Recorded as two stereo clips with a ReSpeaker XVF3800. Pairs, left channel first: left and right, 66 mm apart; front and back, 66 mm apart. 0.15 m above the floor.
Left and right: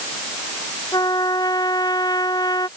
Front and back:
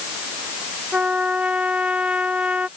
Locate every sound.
0.9 s a trumpet: 110° left